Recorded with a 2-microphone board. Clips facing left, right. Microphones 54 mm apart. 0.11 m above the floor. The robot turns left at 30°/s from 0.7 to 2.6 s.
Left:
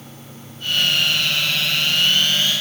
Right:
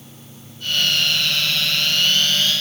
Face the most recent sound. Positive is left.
No sound to turn to.